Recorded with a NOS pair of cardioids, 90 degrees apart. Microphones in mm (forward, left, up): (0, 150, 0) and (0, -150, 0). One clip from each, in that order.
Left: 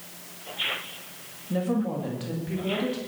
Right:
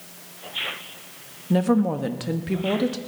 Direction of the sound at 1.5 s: 50° right.